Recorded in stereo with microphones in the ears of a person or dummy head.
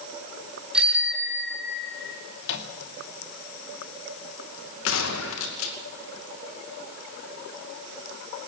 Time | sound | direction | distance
0.7 | a bicycle bell | 5° right (ahead or behind) | 4 m
2.4 | a microwave | 70° left (ahead or behind) | 2 m
4.8 | a gunshot | 70° left (ahead or behind) | 2.5 m